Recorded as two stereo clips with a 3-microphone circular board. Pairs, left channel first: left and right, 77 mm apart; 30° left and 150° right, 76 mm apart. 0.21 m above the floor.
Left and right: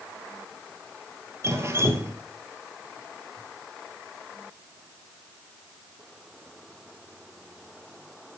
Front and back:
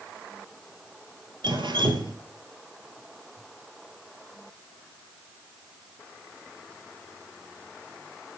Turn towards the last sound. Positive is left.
turn(degrees=-145)